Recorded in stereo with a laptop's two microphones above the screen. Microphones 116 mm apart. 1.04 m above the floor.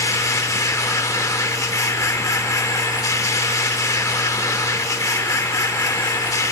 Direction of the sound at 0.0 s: 30° left (ahead or behind).